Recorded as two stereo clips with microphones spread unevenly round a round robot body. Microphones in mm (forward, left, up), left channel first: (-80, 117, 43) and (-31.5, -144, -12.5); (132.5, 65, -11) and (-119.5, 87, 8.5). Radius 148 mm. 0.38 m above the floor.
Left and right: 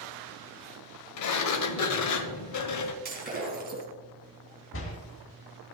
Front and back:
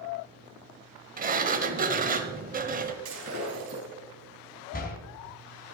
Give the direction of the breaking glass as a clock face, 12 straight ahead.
4 o'clock.